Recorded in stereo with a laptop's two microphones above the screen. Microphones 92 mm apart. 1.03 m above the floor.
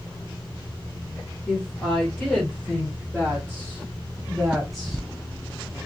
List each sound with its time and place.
1.5 s a woman speaking: 15° left (ahead or behind), 4.5 m; by 5.0 s 5° right (ahead or behind), 1.9 m